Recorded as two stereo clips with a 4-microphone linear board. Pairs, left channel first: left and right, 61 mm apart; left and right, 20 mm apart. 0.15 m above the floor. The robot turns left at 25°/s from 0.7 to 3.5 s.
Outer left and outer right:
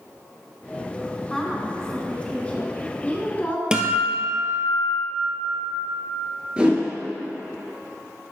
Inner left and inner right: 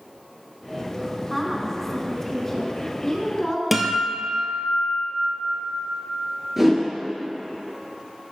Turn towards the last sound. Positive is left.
turn(degrees=-20)  # may be behind; listen again after turning